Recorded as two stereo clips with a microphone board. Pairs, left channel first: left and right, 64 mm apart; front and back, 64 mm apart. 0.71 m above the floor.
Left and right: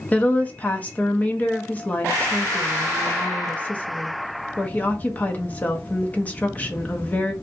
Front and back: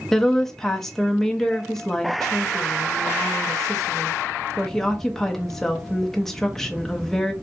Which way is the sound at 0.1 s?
75° left.